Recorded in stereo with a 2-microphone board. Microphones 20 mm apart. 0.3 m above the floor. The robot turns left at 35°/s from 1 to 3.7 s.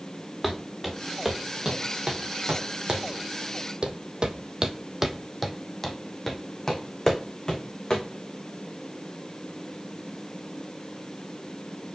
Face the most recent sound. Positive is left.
turn(degrees=35)  # may be behind; listen again after turning